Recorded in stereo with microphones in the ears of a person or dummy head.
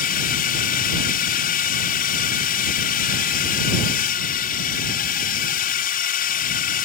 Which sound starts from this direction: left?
A drone, at 0.0 s.